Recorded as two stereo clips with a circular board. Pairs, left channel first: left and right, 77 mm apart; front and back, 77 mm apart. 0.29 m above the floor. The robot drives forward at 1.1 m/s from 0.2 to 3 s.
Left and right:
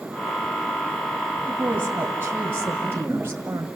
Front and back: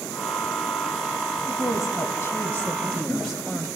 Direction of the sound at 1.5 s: 25° right.